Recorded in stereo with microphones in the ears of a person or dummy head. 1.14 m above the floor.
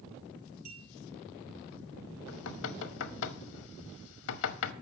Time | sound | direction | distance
0.7 | a clink | 50° right (ahead or behind) | 5.5 m
2.3 | knocking | 75° left (ahead or behind) | 0.9 m